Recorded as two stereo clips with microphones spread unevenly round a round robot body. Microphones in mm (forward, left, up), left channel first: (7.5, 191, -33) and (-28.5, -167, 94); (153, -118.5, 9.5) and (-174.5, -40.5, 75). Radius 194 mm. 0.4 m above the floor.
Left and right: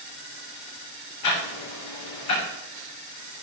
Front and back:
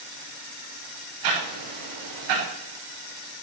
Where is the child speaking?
I don't hear a child speaking.